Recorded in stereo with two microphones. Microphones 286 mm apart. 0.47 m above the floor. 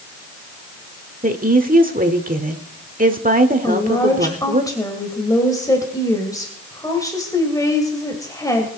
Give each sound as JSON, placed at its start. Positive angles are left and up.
{"t": 1.2, "sound": "a woman speaking", "side_deg": -30, "distance_m": 1.5}
{"t": 3.6, "sound": "a woman speaking", "side_deg": 15, "distance_m": 2.0}